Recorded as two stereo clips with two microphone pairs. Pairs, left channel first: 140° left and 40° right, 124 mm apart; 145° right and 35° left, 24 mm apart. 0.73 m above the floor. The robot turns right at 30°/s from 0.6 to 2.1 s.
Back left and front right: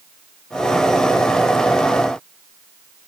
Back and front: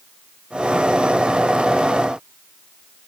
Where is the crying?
No crying in this recording.